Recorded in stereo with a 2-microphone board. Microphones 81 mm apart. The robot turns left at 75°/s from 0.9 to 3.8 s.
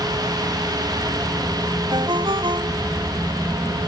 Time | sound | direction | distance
1.9 | a ringtone | 60° right | ?